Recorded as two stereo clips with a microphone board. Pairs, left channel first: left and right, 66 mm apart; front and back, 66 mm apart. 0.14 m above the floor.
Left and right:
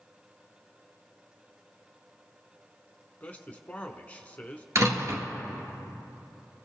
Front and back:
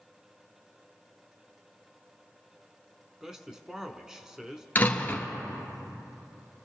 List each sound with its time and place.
3.2 s a man speaking: 110° left, 1.1 m
4.8 s a door slam: 60° right, 1.8 m